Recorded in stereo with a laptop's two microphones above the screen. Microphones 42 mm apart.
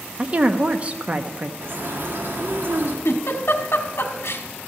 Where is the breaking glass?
I don't hear breaking glass.